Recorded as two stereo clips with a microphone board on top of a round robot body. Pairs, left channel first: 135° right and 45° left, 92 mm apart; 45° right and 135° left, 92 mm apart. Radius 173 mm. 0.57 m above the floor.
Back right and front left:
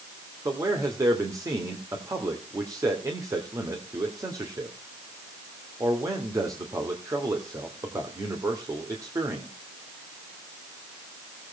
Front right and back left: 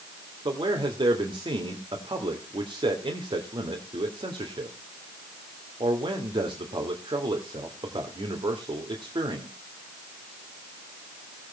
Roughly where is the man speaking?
Left.